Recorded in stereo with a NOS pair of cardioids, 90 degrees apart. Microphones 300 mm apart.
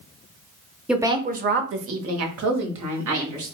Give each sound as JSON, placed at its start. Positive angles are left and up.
{"t": 0.9, "sound": "a woman speaking", "azimuth_deg": 0, "distance_m": 0.6}